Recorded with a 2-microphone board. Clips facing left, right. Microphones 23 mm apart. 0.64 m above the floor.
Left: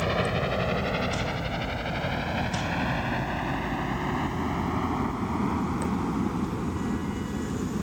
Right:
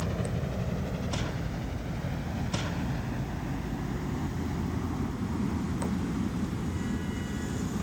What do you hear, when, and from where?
0.0 s a helicopter: 50° left (ahead or behind); by 7.8 s 45° left (ahead or behind)